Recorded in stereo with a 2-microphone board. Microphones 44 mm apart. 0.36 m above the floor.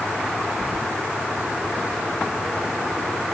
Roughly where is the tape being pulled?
I don't hear tape being pulled.